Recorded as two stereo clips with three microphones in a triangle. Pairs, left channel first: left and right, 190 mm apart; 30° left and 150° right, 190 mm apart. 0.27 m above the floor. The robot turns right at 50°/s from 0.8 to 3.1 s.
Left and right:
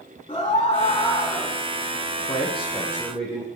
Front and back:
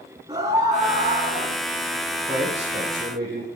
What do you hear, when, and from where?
0.3 s a scream: 150° left, 3.5 m; by 1.6 s 175° right, 3.5 m
2.3 s a man speaking: 135° left, 7.5 m; by 3.5 s straight behind, 7.5 m